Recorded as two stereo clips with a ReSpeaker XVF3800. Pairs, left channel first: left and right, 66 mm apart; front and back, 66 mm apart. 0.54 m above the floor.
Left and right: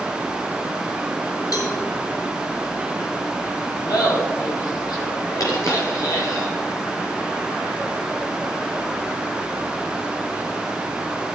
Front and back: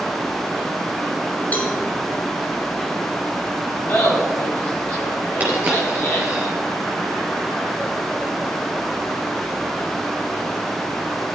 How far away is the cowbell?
About 3.5 m.